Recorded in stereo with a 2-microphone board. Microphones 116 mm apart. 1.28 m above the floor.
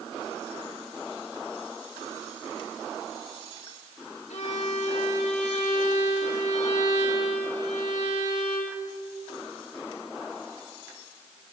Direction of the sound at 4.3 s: 80° left.